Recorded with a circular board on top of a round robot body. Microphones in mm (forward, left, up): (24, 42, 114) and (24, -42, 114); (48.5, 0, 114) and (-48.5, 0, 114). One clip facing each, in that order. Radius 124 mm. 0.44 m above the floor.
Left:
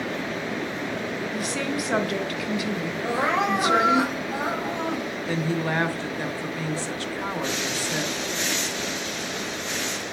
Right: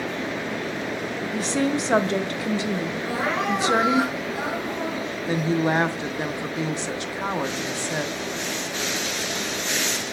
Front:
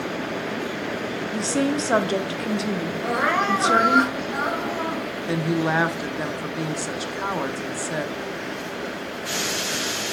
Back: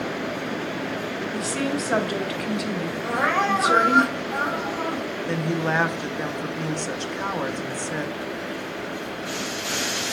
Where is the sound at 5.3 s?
70° right, 0.8 m.